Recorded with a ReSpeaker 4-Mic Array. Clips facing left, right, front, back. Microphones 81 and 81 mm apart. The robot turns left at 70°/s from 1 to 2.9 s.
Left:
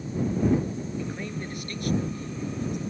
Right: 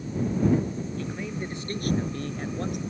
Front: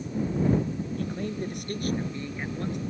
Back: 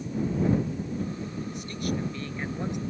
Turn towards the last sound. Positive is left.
turn(degrees=-120)